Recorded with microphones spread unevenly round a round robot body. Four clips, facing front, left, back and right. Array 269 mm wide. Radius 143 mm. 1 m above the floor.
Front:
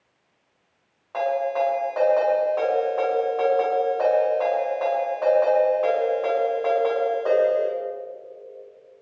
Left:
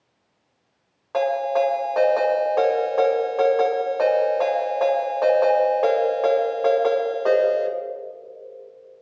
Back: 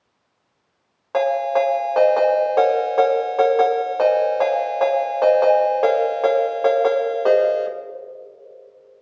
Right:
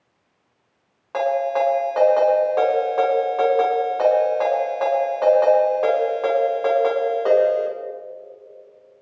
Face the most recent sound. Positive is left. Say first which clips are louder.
# right 1 dB, back 5 dB
turn(degrees=-175)